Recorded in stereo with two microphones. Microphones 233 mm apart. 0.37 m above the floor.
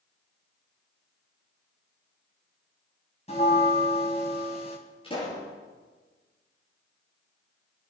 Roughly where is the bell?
Left.